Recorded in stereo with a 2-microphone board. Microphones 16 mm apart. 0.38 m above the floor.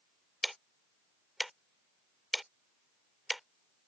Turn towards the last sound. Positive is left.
turn(degrees=-5)  # may be behind; listen again after turning